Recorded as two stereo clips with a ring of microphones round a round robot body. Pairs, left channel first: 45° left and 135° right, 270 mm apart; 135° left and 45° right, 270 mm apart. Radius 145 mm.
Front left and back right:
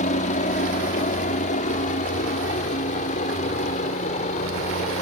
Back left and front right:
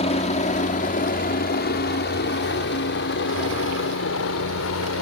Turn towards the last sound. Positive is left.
turn(degrees=105)